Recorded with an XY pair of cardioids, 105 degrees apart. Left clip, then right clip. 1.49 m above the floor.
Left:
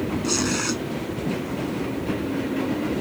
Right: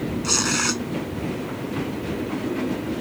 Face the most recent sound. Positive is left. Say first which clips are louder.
# right 4 dB
turn(degrees=-30)